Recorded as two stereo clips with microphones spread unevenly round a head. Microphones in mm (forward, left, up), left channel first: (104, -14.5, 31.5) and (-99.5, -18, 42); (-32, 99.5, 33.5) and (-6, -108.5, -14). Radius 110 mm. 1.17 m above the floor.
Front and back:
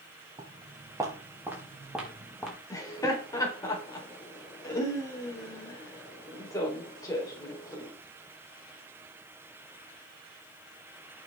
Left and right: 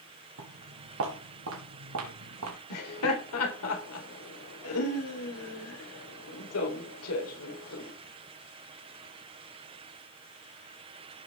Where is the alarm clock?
No alarm clock in this recording.